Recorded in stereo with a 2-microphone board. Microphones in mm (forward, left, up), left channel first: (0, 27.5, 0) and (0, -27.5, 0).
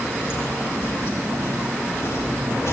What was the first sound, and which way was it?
Footsteps, 50° left (ahead or behind).